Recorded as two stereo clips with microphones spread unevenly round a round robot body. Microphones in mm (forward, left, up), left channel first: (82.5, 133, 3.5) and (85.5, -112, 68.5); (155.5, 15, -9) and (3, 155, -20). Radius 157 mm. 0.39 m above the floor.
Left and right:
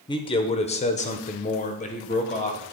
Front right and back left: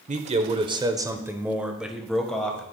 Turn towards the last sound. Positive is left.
turn(degrees=45)